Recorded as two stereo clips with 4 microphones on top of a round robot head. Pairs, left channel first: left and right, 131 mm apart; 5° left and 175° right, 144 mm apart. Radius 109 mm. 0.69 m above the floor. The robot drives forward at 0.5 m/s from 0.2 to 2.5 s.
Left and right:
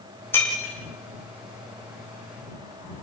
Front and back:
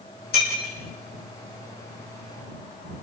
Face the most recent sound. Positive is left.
turn(degrees=20)